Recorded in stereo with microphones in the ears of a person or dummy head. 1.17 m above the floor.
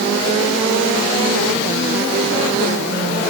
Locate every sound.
Only background noise.